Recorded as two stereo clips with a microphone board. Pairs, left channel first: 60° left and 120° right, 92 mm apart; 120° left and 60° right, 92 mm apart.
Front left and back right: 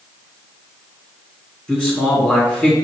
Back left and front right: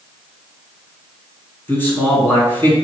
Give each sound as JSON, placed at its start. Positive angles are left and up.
{"t": 1.7, "sound": "a man speaking", "azimuth_deg": 120, "distance_m": 1.6}